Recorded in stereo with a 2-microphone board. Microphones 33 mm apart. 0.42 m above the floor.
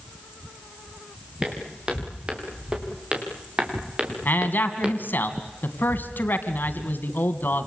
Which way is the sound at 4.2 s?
75° left (ahead or behind).